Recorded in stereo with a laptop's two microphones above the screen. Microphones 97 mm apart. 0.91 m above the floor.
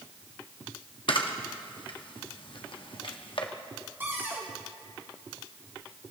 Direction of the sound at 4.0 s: 25° right (ahead or behind).